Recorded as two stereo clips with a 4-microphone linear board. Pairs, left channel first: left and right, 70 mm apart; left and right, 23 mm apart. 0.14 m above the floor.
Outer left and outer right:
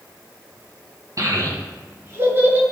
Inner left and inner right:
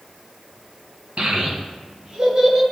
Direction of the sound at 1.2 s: 55° right (ahead or behind).